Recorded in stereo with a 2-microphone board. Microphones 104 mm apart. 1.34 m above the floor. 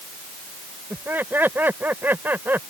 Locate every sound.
0.9 s laughter: 20° right (ahead or behind)